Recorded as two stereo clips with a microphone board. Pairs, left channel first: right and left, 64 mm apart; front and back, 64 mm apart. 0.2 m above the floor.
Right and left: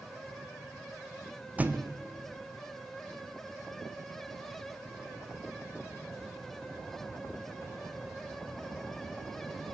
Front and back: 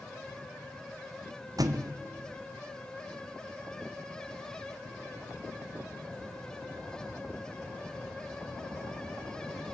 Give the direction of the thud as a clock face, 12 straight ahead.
7 o'clock.